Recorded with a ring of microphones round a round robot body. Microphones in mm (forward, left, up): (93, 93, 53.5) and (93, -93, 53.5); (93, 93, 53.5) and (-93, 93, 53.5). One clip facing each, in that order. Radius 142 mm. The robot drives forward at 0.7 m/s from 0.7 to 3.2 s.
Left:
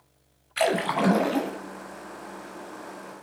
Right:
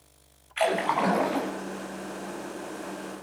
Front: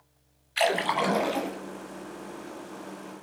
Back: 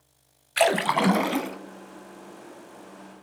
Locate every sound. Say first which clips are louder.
0.6 s a splash: left 2 dB, back 4 dB; 150° left, 1.2 m; by 1.6 s 160° left, 1.7 m